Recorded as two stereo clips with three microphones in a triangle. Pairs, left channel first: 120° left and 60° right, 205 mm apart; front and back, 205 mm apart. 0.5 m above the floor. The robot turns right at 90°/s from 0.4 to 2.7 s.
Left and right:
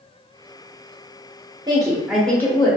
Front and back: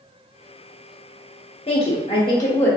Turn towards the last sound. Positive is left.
turn(degrees=75)